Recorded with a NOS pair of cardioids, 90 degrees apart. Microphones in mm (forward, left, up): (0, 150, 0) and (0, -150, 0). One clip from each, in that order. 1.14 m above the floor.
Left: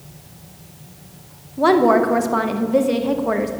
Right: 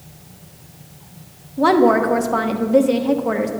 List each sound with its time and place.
1.6 s a woman speaking: straight ahead, 0.7 m